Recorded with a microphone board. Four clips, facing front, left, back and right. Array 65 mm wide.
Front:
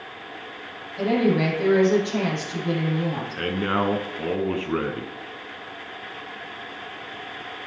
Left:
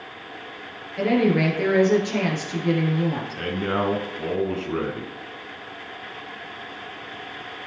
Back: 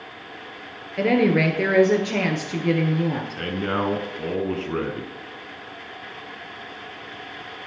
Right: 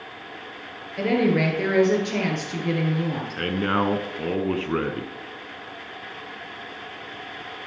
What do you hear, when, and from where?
1.0 s a woman speaking: 175° right, 2.5 m
3.4 s a man speaking: 65° right, 1.2 m